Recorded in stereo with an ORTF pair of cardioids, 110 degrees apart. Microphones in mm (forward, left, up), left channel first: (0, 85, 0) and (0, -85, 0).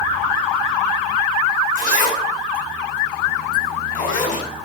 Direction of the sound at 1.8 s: 55° left.